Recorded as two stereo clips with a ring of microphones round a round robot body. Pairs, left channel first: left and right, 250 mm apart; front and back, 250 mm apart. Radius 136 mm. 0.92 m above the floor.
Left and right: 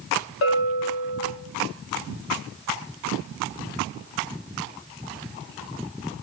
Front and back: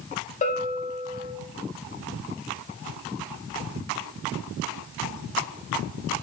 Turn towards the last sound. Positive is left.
turn(degrees=60)